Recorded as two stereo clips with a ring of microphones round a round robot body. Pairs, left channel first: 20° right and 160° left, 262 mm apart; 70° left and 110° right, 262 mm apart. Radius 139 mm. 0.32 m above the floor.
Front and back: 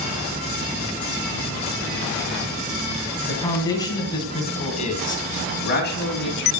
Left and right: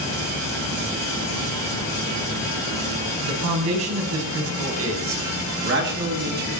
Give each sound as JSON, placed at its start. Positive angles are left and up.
{"t": 3.2, "sound": "a man speaking", "azimuth_deg": -105, "distance_m": 3.0}